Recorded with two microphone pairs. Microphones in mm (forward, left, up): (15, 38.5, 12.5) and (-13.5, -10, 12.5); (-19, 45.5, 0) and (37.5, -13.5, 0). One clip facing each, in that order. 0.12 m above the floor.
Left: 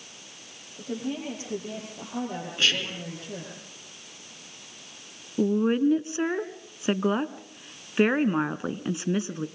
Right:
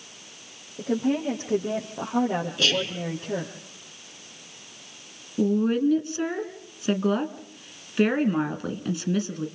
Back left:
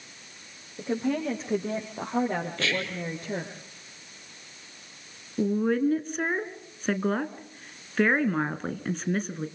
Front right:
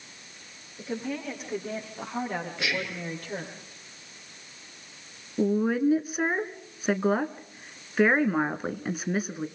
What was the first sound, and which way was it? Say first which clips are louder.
A woman speaking: right 7 dB, back left 5 dB; 175° right.